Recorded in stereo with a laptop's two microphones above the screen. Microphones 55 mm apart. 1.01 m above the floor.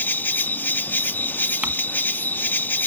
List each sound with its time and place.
0.0 s an insect: 40° left (ahead or behind)
1.6 s crumpling: 25° right (ahead or behind)